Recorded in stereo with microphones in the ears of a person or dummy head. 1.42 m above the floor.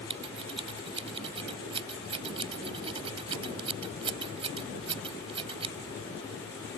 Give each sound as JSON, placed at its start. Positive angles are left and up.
{"t": 0.1, "sound": "scissors", "side_deg": -30}